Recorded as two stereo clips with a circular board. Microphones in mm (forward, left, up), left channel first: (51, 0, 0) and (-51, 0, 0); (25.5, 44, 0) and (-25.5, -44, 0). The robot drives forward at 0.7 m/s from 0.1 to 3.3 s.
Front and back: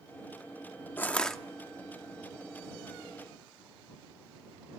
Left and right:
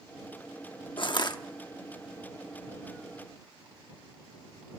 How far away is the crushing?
About 0.9 m.